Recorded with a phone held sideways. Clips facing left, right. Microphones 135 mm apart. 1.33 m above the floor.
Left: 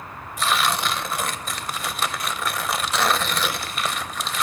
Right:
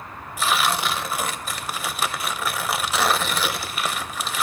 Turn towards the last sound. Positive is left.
turn(degrees=-5)  # may be behind; listen again after turning